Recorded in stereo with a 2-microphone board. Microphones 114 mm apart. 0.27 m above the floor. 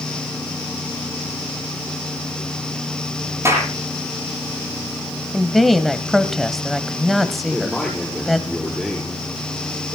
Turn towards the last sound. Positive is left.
turn(degrees=5)  # may be behind; listen again after turning